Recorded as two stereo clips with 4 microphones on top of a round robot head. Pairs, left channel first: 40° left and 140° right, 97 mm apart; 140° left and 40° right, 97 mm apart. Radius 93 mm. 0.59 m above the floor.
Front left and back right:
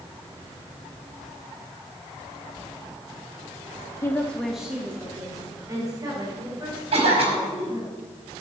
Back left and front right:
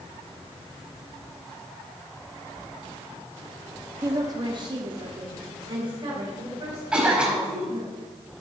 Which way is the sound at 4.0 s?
5° left.